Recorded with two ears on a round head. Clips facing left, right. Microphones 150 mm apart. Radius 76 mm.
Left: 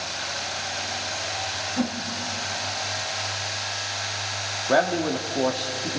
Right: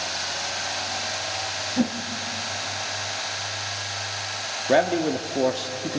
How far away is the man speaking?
About 0.8 m.